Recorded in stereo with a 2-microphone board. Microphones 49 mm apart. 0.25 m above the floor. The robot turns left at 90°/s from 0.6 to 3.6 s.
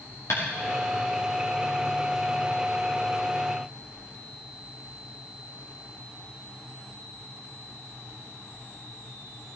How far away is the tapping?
About 6 m.